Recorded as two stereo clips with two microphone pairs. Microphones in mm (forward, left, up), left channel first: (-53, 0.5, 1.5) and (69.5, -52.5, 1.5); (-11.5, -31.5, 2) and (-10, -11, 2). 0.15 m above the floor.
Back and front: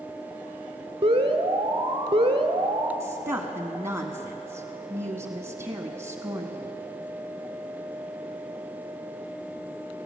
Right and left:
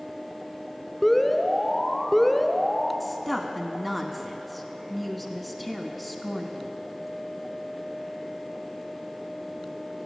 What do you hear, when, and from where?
1.0 s an alarm: 20° right, 1.1 m
3.0 s a woman speaking: 5° right, 1.0 m